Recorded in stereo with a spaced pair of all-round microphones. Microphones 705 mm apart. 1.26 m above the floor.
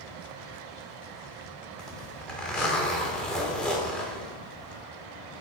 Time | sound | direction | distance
1.8 | a zipper | centre (ahead or behind) | 1.6 m